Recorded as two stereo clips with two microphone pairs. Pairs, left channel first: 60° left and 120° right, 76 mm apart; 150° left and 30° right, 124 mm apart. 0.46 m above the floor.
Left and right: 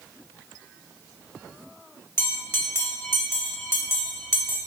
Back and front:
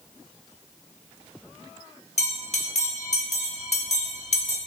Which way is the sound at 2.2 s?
120° left.